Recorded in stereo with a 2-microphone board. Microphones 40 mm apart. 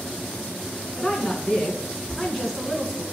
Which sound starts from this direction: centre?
A woman speaking, at 1.0 s.